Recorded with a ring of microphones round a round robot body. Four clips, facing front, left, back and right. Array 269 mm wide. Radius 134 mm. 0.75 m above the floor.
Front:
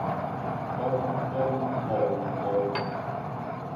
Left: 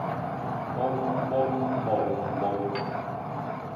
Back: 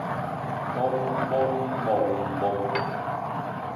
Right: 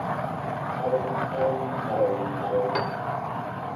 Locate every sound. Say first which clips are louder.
0.8 s singing: right 1 dB, back 3 dB; 150° left, 5.5 m
2.8 s a piano: right 4 dB, back 3 dB; 110° right, 1.6 m